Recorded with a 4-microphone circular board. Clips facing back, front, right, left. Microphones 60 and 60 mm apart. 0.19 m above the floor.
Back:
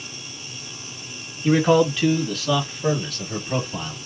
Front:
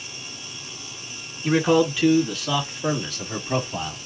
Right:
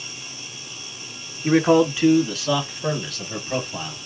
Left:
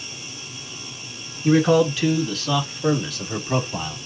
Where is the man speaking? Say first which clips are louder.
Back 2 dB, even; 85° right, 1.6 m; by 4.0 s 50° left, 1.4 m.